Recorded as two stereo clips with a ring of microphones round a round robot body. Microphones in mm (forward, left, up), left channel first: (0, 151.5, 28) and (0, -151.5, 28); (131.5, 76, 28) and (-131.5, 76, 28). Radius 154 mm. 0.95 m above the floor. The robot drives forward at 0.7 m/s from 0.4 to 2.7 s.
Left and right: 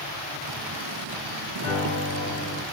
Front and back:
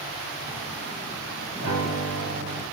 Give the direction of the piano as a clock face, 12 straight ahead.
7 o'clock.